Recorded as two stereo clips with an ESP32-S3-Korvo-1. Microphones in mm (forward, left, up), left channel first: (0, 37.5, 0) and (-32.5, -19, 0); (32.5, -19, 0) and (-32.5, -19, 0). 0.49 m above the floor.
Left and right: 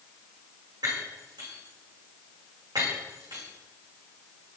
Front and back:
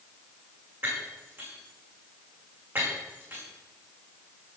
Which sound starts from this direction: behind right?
Breaking glass, at 0.8 s.